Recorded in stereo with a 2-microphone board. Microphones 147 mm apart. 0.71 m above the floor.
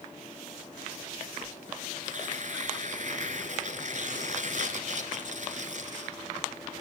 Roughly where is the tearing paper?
Right.